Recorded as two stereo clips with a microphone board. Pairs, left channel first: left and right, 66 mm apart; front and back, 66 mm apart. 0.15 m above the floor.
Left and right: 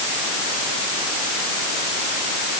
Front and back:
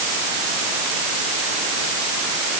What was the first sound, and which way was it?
Only background noise.